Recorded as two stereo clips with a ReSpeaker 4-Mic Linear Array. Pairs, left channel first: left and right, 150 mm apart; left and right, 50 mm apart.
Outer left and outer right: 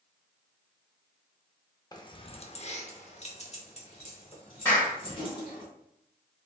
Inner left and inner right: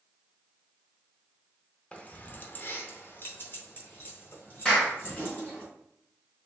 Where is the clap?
20° left (ahead or behind), 2.0 m.